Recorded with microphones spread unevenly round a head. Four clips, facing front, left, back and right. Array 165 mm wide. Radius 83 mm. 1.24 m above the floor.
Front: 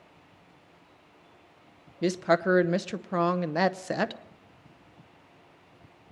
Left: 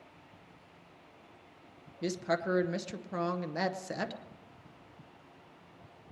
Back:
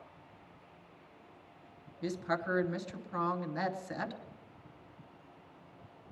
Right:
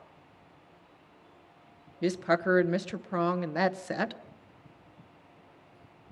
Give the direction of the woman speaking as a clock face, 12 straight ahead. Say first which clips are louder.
Right 5 dB, front 10 dB; 12 o'clock.